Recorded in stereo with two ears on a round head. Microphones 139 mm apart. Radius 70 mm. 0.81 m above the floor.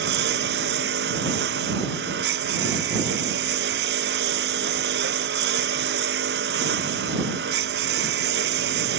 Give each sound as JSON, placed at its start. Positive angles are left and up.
{"t": 0.0, "sound": "a lawn mower", "side_deg": -70}